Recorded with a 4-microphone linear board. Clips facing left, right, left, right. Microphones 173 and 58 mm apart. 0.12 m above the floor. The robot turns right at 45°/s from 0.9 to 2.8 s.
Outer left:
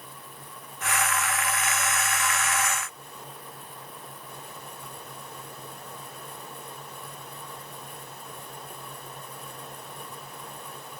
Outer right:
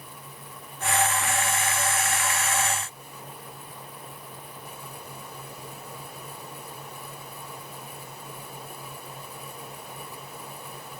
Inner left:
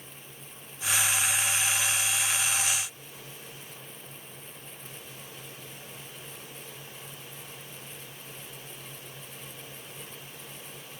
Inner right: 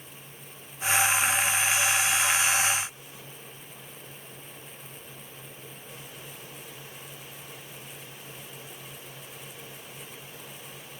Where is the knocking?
I don't hear knocking.